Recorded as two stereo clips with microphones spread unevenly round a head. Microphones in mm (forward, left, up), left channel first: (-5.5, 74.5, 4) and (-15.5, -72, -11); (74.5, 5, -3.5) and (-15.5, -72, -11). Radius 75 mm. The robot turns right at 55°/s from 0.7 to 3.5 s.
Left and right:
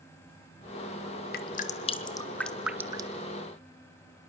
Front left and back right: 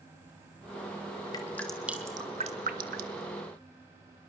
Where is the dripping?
110° left, 1.7 m; by 3.2 s 150° right, 1.7 m.